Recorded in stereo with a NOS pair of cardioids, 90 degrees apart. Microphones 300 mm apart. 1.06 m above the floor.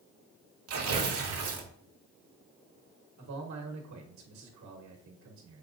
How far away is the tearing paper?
About 1.2 m.